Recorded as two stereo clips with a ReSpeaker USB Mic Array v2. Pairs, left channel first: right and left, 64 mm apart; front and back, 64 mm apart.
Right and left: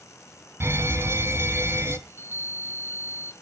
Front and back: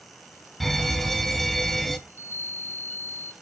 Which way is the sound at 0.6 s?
85° left.